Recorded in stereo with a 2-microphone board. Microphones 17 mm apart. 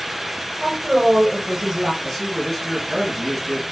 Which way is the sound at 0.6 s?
35° right (ahead or behind).